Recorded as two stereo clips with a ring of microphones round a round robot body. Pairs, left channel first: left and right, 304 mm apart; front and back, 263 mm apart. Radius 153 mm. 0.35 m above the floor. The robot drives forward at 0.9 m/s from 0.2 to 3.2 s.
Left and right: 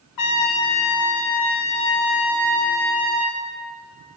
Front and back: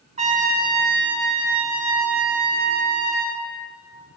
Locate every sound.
0.2 s a trumpet: 115° left, 1.9 m; by 3.4 s 155° left, 4 m